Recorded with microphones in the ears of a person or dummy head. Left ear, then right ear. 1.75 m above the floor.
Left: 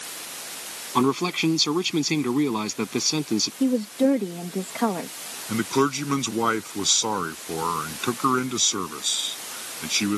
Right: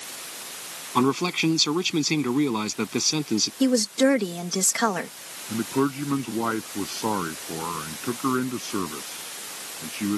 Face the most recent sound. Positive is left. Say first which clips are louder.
# left 3 dB
turn(degrees=80)